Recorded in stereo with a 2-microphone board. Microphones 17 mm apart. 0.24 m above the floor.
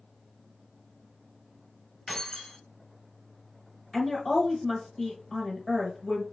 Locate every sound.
2.1 s keys jangling: 20° left (ahead or behind), 1.1 m
3.9 s a woman speaking: centre (ahead or behind), 1.0 m